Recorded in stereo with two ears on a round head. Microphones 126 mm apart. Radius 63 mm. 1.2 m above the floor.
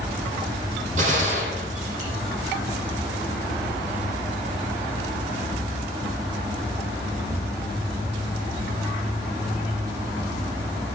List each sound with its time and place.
1.0 s a gunshot: 60° right (ahead or behind), 7 m